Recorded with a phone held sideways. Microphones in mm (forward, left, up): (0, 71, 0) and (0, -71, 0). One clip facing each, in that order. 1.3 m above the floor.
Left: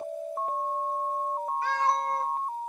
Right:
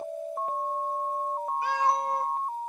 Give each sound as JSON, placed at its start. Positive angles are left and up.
{"t": 1.6, "sound": "a cat meowing", "side_deg": -15, "distance_m": 1.0}